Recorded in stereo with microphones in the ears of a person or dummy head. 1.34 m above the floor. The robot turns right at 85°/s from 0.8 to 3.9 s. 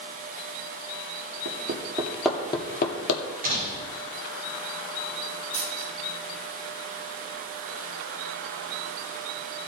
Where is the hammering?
65° right (ahead or behind), 2 m; by 3.2 s 75° left (ahead or behind), 2 m.